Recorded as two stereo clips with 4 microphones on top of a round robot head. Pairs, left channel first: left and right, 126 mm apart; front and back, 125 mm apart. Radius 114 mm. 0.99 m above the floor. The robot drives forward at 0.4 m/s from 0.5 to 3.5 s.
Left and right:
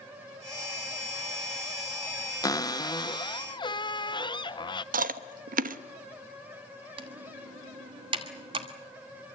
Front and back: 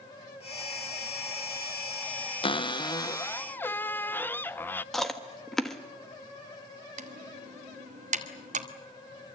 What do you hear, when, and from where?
2.4 s a cupboard door: 35° left, 1.0 m; by 4.8 s 65° left, 0.8 m
4.9 s chewing: 85° right, 0.9 m
7.0 s typing on a keyboard: 145° right, 1.3 m